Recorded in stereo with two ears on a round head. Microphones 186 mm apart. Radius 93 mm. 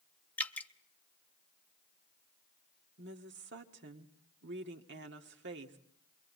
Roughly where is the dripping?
Centre.